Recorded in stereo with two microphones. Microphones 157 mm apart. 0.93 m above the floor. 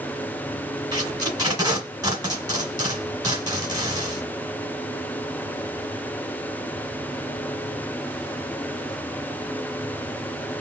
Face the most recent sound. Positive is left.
turn(degrees=-25)  # may be behind; listen again after turning